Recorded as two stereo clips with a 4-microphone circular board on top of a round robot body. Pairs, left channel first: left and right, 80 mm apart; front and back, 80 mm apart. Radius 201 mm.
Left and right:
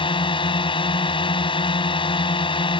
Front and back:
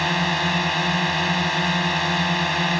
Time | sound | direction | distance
0.0 | a drone | 90° left | ?